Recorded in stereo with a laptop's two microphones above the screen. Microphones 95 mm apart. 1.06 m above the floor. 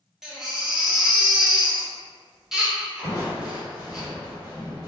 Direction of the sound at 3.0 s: 40° left (ahead or behind).